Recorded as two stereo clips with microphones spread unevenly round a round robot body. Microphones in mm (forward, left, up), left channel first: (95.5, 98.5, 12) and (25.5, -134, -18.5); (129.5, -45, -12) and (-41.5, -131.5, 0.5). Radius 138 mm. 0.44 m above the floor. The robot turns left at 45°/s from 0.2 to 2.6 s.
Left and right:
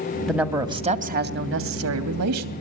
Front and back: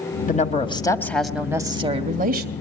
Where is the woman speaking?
20° right, 2.5 m; by 2.5 s 120° right, 2.5 m.